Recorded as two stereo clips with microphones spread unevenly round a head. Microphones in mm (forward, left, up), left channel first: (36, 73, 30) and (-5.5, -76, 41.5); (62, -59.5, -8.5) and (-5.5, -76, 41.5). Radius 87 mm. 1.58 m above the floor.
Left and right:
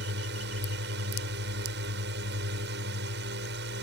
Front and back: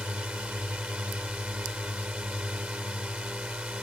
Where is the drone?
95° right.